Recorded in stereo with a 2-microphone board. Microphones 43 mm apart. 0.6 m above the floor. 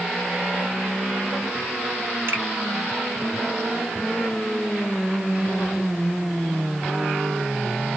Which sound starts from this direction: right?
A finger snap, at 2.3 s.